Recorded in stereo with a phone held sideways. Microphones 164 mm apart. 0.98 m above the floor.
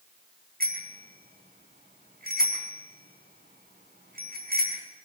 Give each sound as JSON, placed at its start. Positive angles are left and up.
{"t": 0.6, "sound": "a bicycle bell", "side_deg": -75, "distance_m": 6.5}